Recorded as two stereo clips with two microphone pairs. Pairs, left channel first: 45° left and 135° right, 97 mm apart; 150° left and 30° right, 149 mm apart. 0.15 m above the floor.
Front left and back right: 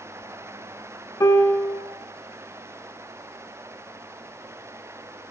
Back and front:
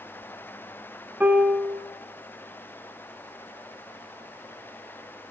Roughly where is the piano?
Ahead left.